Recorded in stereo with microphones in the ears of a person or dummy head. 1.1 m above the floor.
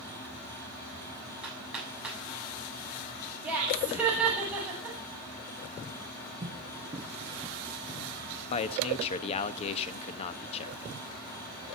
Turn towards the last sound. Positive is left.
turn(degrees=35)  # may be behind; listen again after turning